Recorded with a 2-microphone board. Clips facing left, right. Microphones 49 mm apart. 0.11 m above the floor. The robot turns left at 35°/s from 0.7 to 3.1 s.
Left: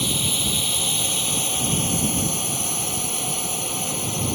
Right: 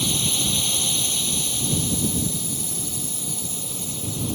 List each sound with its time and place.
0.0 s a drone: 165° left; by 4.4 s 80° left